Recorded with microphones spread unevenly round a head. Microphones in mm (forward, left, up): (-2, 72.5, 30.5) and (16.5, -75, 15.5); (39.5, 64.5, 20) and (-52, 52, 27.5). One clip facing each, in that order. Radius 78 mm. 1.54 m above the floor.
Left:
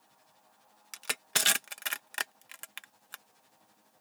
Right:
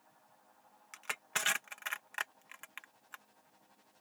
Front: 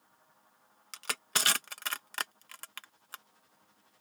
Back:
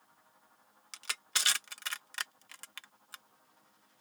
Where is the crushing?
50° left.